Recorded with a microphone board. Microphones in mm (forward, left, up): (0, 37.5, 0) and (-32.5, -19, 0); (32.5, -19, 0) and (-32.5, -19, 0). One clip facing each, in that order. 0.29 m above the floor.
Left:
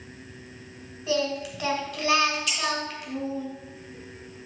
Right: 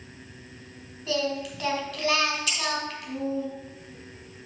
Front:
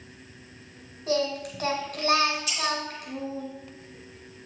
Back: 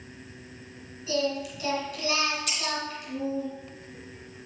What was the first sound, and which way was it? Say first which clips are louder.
Singing: left 1 dB, front 1 dB; 20° right.